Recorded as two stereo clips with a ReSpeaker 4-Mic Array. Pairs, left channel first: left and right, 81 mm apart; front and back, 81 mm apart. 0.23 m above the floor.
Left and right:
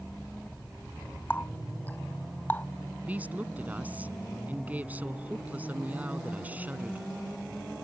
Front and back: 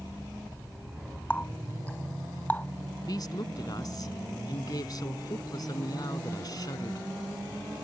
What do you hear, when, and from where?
1.3 s a running tap: 50° left
3.0 s a woman speaking: 25° right